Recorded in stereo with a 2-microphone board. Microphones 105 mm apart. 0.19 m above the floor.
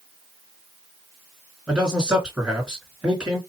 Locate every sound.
1.7 s a man speaking: 5° right (ahead or behind), 2.5 m